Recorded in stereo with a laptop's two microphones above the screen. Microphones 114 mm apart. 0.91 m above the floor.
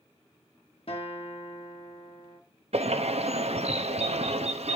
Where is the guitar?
55° left (ahead or behind), 1.7 m.